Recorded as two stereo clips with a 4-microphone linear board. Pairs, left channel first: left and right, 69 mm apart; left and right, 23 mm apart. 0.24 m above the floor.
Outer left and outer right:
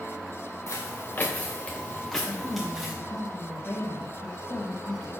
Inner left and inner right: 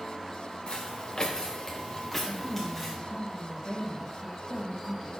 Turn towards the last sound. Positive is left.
turn(degrees=30)  # may be behind; listen again after turning